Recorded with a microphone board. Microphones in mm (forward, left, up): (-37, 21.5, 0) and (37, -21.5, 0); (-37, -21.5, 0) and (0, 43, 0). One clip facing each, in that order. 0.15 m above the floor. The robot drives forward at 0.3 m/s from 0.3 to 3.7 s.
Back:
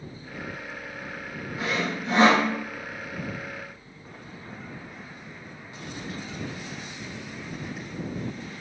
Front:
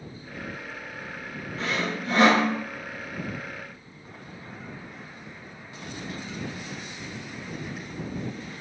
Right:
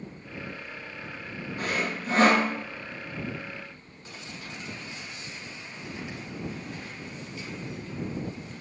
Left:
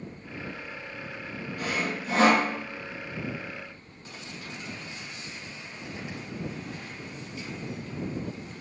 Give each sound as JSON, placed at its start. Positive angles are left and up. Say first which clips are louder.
{"t": 1.6, "sound": "sawing", "louder": "even, right 1 dB", "azimuth_deg": -135, "distance_m": 0.8}